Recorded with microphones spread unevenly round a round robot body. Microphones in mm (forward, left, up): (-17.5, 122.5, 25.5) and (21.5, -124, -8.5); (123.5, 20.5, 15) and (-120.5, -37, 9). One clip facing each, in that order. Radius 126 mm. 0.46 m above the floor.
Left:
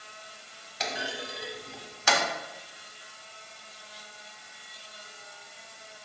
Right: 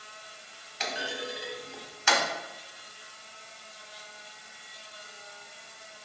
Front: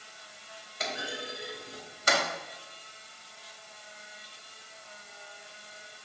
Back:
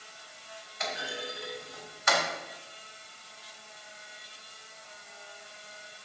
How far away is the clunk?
About 1.4 m.